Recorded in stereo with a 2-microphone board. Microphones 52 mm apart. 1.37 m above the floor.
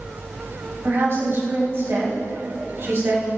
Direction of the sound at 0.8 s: 55° right (ahead or behind).